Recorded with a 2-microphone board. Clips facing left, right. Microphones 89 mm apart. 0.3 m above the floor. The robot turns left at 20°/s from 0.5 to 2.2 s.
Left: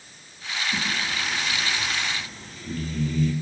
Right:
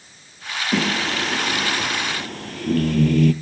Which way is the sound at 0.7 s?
90° right.